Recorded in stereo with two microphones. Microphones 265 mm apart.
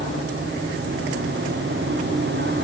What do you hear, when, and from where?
Only background noise.